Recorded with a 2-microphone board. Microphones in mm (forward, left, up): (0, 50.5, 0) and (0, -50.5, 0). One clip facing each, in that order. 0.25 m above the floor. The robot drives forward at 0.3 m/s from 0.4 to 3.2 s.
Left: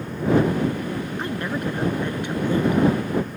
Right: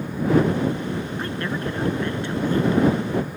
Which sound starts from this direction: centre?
A woman speaking, at 1.2 s.